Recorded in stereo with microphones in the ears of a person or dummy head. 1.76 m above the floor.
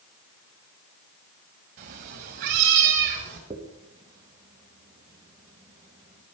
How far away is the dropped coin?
About 1.2 m.